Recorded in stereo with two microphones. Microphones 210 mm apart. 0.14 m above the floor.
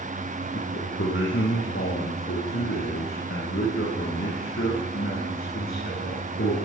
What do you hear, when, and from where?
0.5 s a man speaking: 70° left (ahead or behind), 4 m; by 6.6 s 80° left, 8.5 m